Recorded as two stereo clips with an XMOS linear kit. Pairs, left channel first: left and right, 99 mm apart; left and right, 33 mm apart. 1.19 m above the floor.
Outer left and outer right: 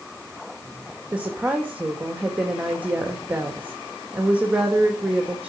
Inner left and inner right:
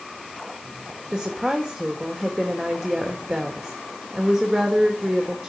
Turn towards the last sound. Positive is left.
turn(degrees=-15)  # may be behind; listen again after turning